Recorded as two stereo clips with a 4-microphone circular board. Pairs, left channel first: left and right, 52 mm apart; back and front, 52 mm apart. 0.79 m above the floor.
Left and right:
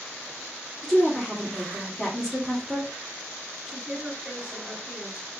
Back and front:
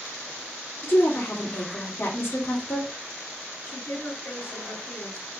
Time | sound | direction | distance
0.8 | a woman speaking | 170° right | 1.7 m
3.6 | a woman speaking | 155° right | 3.5 m